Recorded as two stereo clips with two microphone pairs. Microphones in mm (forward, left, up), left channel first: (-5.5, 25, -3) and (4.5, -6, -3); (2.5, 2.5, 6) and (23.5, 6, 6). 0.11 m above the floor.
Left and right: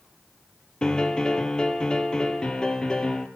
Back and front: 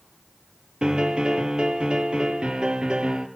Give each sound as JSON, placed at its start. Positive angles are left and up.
{"t": 0.8, "sound": "a piano", "azimuth_deg": 45, "distance_m": 2.0}